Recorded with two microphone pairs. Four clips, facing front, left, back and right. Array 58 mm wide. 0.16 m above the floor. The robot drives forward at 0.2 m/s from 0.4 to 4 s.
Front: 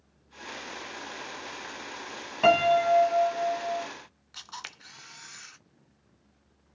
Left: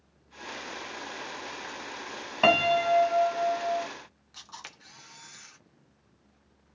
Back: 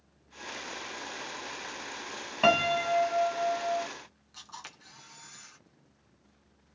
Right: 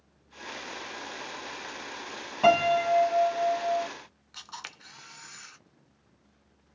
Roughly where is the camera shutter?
Ahead right.